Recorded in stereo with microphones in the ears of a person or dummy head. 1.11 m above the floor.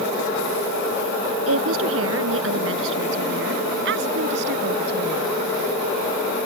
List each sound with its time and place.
1.5 s a woman speaking: 80° right; by 5.3 s 60° right (ahead or behind)